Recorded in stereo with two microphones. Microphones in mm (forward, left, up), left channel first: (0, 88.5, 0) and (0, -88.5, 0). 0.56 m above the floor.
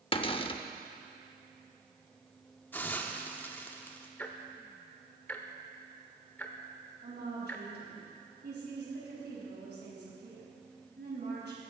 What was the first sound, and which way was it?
A cupboard door, 30° left (ahead or behind).